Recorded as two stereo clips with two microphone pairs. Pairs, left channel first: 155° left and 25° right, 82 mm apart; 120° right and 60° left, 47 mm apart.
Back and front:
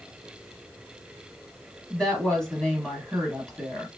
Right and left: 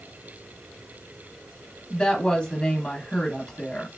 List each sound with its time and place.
1.9 s a woman speaking: 135° right, 1.0 m